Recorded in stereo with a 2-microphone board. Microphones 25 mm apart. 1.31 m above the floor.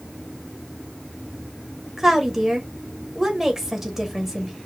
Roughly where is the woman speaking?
Centre.